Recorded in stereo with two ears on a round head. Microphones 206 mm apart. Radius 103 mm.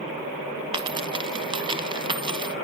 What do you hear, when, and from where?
0.7 s a dropped coin: 20° right (ahead or behind), 0.9 m